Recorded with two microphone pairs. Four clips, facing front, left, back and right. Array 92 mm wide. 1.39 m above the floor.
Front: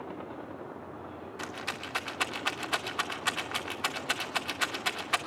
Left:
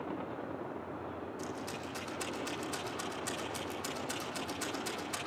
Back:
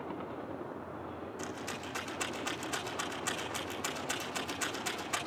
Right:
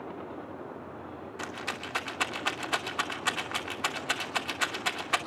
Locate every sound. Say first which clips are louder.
1.4 s a rattle: right 3 dB, front 4 dB; 55° right, 2.5 m